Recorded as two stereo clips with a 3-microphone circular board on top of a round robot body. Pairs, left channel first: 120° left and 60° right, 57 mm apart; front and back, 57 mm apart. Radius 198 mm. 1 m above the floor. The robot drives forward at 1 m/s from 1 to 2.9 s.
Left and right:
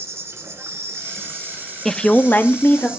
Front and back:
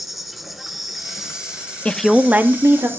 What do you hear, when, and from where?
0.0 s an insect: 95° right, 2.5 m; by 3.0 s 135° right, 3 m
1.9 s a woman speaking: 40° left, 0.7 m; by 2.9 s 165° left, 1.1 m